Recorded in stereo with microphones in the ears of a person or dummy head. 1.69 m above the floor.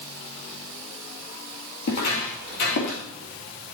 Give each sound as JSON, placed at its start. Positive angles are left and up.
{"t": 1.8, "sound": "footsteps", "side_deg": 50, "distance_m": 3.0}